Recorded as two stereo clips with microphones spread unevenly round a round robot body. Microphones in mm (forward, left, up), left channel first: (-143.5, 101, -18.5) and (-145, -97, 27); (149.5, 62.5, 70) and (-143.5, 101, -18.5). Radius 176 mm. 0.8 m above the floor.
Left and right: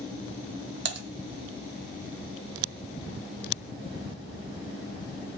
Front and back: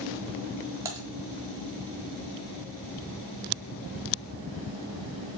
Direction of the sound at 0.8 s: 100° right.